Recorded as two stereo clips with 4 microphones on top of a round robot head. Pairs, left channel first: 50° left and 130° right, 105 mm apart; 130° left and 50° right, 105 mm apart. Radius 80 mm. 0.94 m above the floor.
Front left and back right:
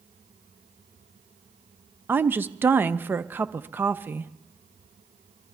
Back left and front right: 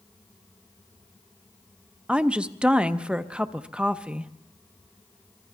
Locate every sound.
2.1 s a woman speaking: 110° right, 0.6 m